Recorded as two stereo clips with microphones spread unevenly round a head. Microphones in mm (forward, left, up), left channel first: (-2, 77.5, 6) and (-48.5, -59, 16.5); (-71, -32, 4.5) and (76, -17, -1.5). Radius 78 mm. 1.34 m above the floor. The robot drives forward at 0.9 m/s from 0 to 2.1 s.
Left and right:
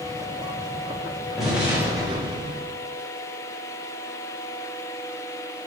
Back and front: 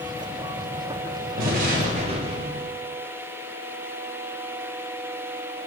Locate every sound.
1.4 s an explosion: 20° right, 1.1 m; by 2.7 s 45° right, 0.5 m